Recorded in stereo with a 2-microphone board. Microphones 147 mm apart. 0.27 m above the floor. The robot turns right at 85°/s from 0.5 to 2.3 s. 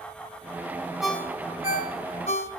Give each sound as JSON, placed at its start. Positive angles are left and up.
{"t": 1.0, "sound": "a ringtone", "side_deg": 0, "distance_m": 1.0}